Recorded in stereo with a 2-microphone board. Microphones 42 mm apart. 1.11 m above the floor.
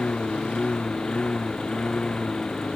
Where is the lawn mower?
20° left (ahead or behind); by 2.8 s 15° left (ahead or behind).